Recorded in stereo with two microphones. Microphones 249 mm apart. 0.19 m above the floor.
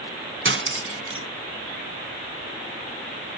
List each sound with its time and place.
0.5 s cutlery clinking: 55° right (ahead or behind), 1.0 m